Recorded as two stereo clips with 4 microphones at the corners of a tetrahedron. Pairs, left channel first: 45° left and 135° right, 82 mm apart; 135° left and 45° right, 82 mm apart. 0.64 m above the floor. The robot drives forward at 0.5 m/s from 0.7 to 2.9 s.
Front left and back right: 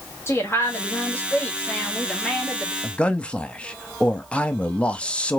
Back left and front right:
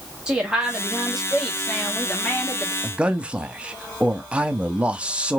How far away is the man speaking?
About 0.6 m.